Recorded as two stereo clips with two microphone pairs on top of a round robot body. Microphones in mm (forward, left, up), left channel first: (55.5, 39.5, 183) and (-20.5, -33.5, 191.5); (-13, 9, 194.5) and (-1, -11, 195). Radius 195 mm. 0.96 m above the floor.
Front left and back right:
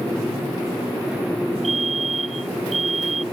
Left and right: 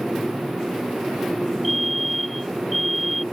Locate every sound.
1.6 s a fire alarm: 150° right